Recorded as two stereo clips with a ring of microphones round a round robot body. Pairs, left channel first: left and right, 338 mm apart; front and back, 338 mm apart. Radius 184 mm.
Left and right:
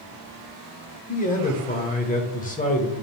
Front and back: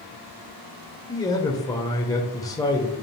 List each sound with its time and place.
1.1 s a man speaking: 65° left, 1.2 m